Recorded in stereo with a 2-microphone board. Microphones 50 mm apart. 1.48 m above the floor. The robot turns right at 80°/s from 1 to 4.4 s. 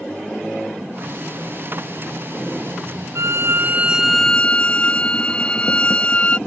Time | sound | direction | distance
3.1 | a violin | 75° right | ?